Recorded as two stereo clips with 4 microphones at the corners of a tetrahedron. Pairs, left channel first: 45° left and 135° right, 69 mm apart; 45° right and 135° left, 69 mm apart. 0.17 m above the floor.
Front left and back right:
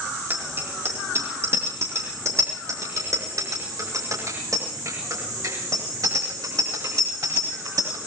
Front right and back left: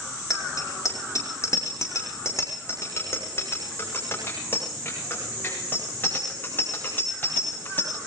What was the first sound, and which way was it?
A bicycle bell, 80° right.